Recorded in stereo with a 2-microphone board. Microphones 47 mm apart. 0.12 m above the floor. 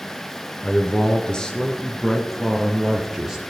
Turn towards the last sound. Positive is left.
turn(degrees=-15)  # may be behind; listen again after turning